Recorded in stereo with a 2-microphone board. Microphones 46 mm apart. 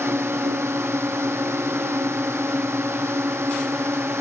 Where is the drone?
85° right.